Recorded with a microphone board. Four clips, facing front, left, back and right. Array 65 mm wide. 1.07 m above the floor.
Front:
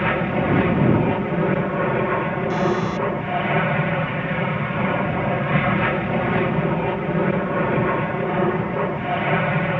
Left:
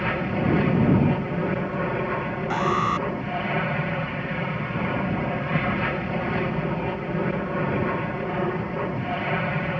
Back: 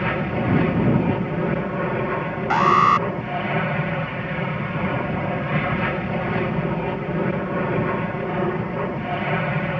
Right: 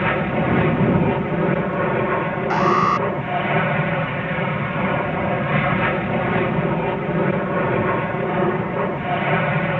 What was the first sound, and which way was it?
An aircraft, 60° right.